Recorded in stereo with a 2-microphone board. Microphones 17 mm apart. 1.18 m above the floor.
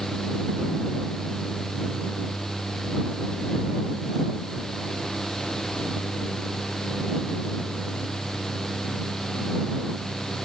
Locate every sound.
Only background noise.